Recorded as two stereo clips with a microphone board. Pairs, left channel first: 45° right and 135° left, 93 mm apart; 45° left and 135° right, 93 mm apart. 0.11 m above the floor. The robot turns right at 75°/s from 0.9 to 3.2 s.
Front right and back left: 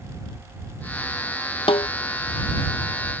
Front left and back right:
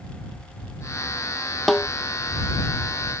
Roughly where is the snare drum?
Ahead right.